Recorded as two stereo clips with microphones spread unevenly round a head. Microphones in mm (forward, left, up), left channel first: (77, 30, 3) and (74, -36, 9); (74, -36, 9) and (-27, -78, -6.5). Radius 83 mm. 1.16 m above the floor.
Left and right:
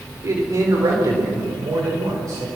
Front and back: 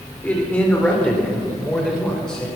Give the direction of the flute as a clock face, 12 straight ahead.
I don't hear a flute.